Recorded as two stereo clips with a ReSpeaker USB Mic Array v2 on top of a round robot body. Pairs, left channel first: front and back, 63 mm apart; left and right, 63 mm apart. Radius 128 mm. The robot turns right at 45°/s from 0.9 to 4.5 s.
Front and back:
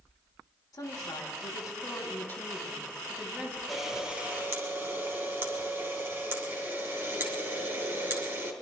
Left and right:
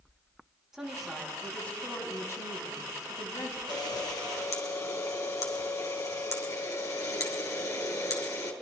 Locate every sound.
0.7 s a woman speaking: 5° right, 4 m; by 3.6 s 115° left, 4 m
3.7 s a camera shutter: 90° left, 2.5 m; by 8.5 s 125° left, 2.5 m